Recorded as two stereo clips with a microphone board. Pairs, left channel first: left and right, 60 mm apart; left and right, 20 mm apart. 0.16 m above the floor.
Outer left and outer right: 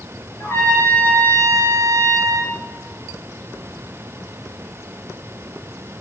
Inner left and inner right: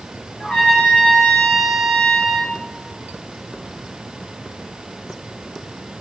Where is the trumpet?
50° left (ahead or behind), 2.5 m.